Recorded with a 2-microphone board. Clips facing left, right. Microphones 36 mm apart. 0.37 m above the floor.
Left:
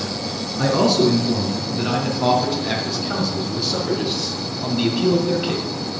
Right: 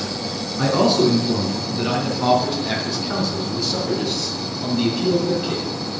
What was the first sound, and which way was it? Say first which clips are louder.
A man speaking: even; 5° right (ahead or behind).